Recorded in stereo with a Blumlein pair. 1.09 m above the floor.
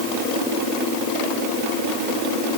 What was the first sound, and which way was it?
Only background noise.